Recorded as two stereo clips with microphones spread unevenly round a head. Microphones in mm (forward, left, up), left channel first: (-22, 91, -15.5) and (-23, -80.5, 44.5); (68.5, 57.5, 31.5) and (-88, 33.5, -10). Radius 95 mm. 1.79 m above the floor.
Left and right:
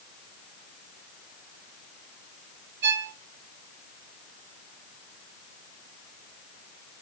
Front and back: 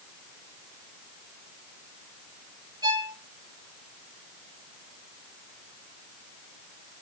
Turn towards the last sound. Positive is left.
turn(degrees=-100)